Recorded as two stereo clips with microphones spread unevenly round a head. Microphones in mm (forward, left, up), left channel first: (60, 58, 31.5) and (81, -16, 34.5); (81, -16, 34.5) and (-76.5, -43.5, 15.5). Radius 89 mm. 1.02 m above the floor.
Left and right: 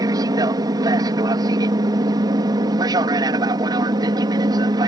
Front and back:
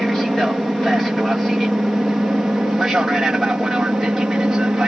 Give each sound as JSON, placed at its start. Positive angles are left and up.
{"t": 0.0, "sound": "an aircraft", "azimuth_deg": -85}